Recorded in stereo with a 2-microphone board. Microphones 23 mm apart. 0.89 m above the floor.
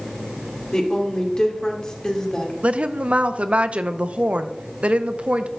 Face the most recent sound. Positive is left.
turn(degrees=-60)  # may be behind; listen again after turning